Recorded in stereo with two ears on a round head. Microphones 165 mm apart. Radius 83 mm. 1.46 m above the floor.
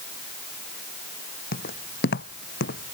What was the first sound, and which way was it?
Footsteps, 55° left (ahead or behind).